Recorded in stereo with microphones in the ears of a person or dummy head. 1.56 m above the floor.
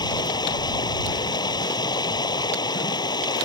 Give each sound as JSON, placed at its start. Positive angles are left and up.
{"t": 0.0, "sound": "running water", "side_deg": 25}